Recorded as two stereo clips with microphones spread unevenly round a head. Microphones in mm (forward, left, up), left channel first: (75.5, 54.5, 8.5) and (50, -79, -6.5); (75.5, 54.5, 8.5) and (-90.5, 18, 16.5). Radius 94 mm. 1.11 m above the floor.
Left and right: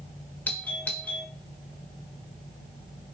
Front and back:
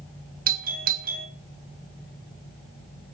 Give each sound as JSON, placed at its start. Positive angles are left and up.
{"t": 0.5, "sound": "a doorbell", "azimuth_deg": 165, "distance_m": 1.9}